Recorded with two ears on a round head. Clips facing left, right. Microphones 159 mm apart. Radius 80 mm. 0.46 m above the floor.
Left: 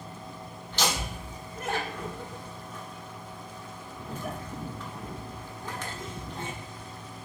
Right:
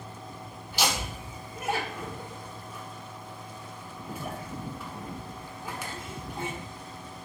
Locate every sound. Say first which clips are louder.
0.7 s laughter: even; 10° right (ahead or behind), 0.9 m